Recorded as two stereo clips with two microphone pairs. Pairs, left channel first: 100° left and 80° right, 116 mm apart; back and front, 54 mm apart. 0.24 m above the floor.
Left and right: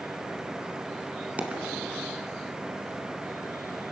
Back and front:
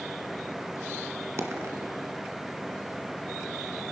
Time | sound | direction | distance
1.4 | a dropped coin | 5° right | 1.2 m